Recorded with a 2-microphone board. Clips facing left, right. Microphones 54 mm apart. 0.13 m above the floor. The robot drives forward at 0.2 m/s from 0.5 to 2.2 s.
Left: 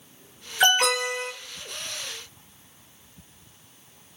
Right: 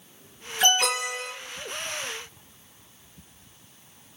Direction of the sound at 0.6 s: 55° left (ahead or behind).